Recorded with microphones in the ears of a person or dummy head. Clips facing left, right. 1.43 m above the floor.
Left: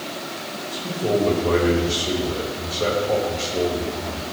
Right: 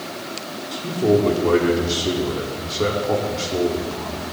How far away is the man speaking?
About 3 m.